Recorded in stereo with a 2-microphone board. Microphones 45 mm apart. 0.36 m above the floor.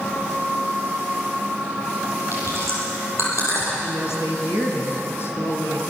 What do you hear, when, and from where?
2.3 s chewing: 85° left, 8.5 m
3.8 s a woman speaking: 60° left (ahead or behind), 4.5 m